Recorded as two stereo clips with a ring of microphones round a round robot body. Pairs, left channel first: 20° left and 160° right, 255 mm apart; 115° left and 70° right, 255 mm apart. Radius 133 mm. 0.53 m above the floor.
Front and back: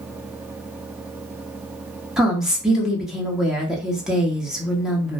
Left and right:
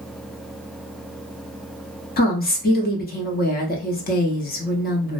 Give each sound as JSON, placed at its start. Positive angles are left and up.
{"t": 2.2, "sound": "a woman speaking", "azimuth_deg": 115, "distance_m": 0.8}